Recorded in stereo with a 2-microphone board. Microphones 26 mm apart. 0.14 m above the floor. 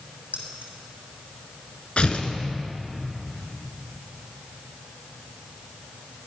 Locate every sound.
0.3 s keys jangling: 75° right (ahead or behind), 3.5 m
2.0 s tearing paper: 45° left (ahead or behind), 1.5 m